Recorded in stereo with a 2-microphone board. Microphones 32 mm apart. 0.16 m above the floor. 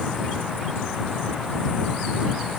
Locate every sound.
Only background noise.